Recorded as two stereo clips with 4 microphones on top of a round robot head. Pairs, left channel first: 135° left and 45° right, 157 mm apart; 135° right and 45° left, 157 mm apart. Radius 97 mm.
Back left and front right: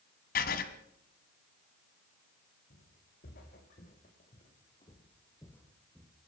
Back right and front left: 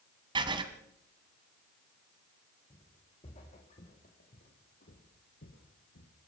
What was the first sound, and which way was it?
Writing, 105° left.